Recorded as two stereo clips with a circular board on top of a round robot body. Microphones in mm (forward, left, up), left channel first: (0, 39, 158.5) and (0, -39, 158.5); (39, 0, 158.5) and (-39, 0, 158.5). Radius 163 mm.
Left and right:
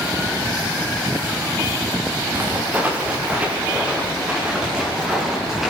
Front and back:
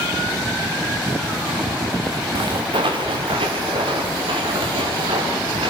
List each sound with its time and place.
2.4 s footsteps: 155° right, 4 m; by 5.7 s 175° right, 8 m